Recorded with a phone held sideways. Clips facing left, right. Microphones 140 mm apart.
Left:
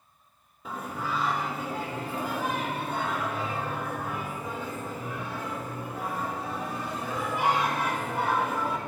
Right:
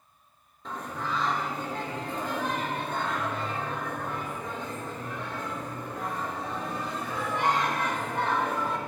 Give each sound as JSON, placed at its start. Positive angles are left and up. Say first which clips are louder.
{"t": 0.7, "sound": "singing", "louder": "left 1 dB", "side_deg": 10, "distance_m": 0.8}